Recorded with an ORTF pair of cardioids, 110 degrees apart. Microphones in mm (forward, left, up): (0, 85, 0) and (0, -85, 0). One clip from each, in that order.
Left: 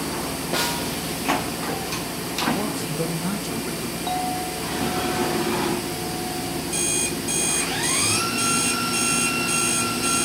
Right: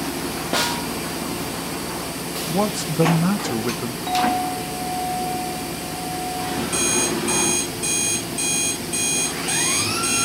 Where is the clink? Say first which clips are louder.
Right 6 dB; 5° left, 2.5 m.